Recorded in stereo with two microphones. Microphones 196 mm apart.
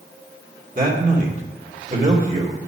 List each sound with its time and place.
0.8 s a man speaking: 45° right (ahead or behind), 2.5 m